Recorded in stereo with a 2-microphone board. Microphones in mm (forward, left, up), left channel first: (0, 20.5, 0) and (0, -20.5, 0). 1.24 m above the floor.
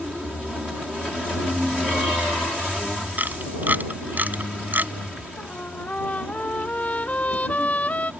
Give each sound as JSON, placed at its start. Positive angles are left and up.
{"t": 3.2, "sound": "a camera shutter", "side_deg": -50}
{"t": 5.4, "sound": "a trumpet", "side_deg": 40}